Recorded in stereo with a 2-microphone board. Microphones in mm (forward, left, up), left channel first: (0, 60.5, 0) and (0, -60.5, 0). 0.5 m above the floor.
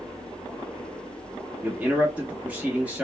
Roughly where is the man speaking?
Centre.